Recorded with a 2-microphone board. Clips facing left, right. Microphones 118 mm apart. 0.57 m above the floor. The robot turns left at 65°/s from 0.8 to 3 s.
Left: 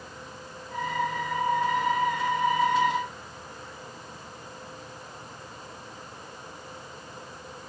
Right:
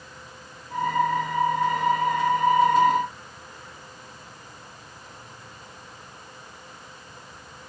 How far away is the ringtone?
I don't hear a ringtone.